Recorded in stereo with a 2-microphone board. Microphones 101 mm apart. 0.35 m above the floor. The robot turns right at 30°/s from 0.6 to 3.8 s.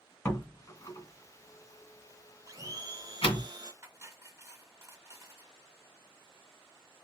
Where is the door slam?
30° left (ahead or behind), 2 m; by 3.5 s 60° left (ahead or behind), 2 m.